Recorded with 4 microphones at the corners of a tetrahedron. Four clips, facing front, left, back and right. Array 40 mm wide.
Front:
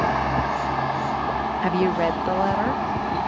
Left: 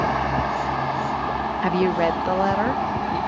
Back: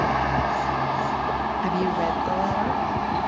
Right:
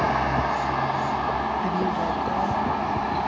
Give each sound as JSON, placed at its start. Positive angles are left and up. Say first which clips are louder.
{"t": 1.6, "sound": "a woman speaking", "louder": "left 4 dB, front 4 dB", "azimuth_deg": 60, "distance_m": 0.6}